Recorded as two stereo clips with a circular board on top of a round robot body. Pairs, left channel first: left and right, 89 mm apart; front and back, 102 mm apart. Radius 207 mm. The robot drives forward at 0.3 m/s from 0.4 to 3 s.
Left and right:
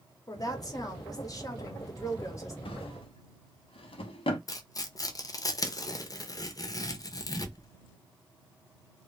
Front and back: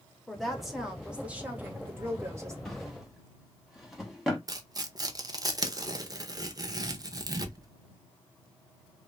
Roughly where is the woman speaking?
Left.